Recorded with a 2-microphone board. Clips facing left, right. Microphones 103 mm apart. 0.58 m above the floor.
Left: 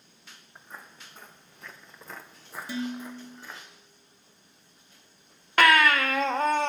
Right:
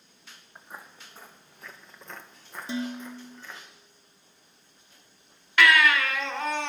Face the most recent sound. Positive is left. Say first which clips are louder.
# left 1 dB
turn(degrees=45)  # may be behind; listen again after turning